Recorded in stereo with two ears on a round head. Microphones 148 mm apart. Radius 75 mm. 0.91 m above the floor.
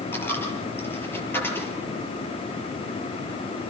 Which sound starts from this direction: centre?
A dropped coin, at 0.1 s.